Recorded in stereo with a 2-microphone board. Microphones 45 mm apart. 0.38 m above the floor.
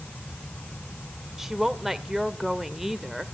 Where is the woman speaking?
10° right (ahead or behind), 1.0 m.